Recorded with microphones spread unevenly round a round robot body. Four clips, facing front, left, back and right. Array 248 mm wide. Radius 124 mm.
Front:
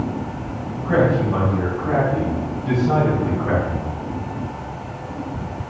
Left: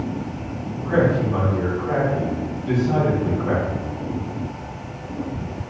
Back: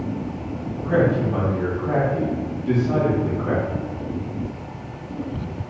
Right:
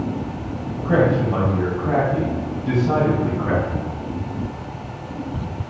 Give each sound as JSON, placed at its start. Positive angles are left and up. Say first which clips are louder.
{"t": 0.8, "sound": "a man speaking", "louder": "right 1 dB, front 2 dB", "azimuth_deg": -65, "distance_m": 2.0}